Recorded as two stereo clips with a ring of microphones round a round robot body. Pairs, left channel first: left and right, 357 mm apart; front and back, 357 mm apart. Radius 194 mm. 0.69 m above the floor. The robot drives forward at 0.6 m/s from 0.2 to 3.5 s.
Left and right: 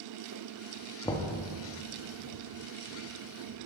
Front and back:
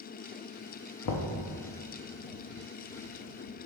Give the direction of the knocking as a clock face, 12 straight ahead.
12 o'clock.